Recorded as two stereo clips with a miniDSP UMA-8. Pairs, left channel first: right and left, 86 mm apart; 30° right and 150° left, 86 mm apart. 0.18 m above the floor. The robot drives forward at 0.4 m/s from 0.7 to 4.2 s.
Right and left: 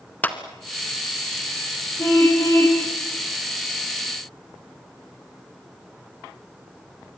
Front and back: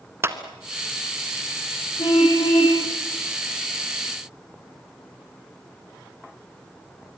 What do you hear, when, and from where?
0.2 s a clap: 155° right, 1.6 m
2.0 s a car horn: 35° right, 5 m